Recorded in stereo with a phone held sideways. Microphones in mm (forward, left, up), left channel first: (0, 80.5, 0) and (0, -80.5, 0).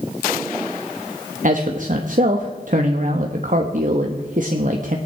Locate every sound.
1.4 s a man speaking: 55° right (ahead or behind), 1.1 m